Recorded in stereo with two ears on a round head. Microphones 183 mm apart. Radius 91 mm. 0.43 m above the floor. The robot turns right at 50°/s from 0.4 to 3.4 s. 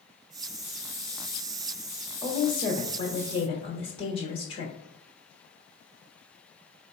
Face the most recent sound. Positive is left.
turn(degrees=30)  # may be behind; listen again after turning